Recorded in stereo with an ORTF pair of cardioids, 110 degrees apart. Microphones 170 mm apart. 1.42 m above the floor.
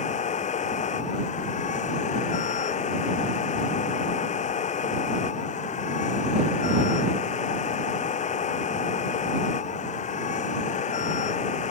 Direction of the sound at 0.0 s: 45° left.